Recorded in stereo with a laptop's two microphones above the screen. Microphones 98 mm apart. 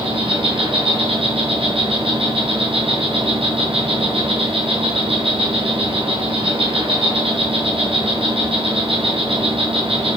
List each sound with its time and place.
0.0 s an insect: 70° right (ahead or behind), 3.5 m